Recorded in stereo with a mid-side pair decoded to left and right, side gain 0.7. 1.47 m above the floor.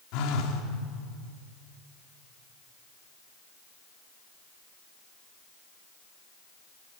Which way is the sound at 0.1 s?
65° left.